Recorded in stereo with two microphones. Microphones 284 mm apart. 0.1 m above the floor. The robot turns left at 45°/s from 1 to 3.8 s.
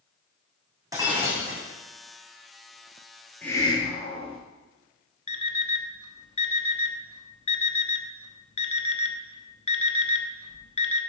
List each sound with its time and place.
0.9 s breaking glass: 10° right (ahead or behind), 3 m; by 1.6 s 40° right (ahead or behind), 3 m
3.4 s a hiss: 5° left (ahead or behind), 1.9 m; by 4.4 s 20° left (ahead or behind), 1.9 m
5.3 s an alarm clock: 25° left (ahead or behind), 0.9 m